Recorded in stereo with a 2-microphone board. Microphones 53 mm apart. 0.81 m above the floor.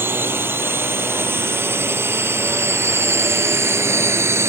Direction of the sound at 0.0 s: 50° right (ahead or behind).